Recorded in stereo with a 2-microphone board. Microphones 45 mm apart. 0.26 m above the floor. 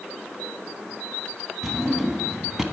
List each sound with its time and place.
1.6 s a drawer: 10° right (ahead or behind), 1.3 m